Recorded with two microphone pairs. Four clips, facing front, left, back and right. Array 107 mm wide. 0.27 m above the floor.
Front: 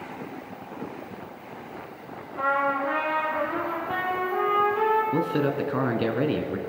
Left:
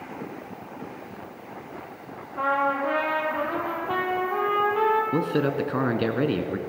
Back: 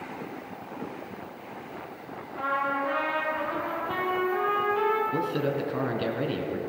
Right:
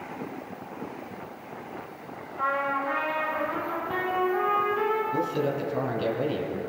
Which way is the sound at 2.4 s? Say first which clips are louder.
Left 4 dB, front 3 dB; 75° left.